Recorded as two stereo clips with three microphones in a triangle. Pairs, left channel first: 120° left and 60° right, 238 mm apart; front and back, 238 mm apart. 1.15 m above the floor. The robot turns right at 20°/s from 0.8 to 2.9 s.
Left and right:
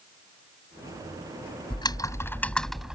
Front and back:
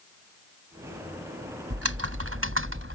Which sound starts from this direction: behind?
Typing on a keyboard, at 1.7 s.